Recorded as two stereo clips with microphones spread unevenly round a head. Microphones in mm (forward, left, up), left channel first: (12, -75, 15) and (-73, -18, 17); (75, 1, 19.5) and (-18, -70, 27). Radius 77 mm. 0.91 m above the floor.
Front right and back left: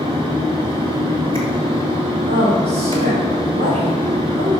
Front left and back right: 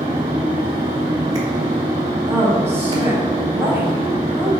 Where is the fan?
170° left, 4 m.